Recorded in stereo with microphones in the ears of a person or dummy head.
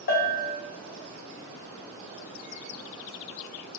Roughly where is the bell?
Left.